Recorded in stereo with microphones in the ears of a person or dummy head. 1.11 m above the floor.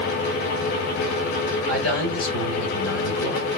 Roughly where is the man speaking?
Left.